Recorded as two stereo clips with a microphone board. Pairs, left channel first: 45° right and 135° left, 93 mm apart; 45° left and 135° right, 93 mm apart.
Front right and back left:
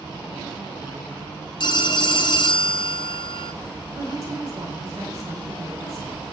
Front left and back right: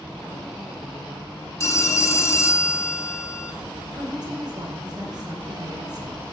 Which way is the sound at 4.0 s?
175° right.